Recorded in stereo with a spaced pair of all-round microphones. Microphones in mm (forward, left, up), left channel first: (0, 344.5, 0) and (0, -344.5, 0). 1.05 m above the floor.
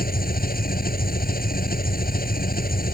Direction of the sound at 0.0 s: 10° left (ahead or behind).